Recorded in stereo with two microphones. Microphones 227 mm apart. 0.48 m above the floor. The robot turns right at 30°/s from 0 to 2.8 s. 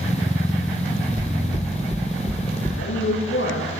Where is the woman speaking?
75° left (ahead or behind), 9.5 m.